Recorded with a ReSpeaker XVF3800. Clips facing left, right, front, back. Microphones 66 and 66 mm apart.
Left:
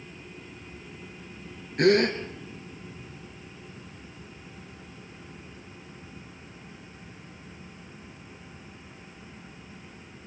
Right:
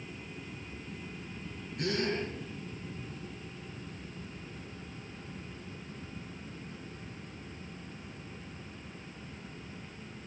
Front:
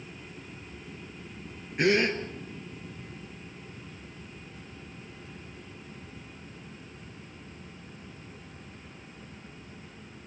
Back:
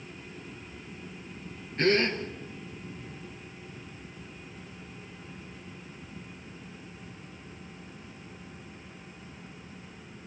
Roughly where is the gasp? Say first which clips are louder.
Left 12 dB, front 1 dB; left.